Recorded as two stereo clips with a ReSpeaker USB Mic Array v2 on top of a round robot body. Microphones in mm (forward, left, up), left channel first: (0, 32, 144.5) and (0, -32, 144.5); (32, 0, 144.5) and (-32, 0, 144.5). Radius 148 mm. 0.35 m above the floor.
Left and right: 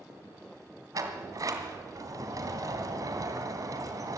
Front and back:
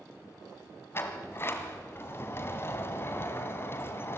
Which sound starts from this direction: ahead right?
A sliding door, at 0.9 s.